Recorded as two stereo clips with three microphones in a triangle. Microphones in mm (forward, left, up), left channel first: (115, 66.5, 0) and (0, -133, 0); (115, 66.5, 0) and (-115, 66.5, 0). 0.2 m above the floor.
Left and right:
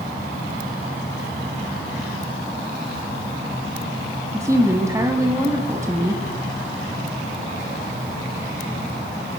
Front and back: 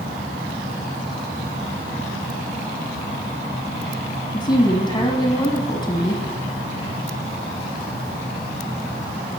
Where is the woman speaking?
55° right, 1.2 m.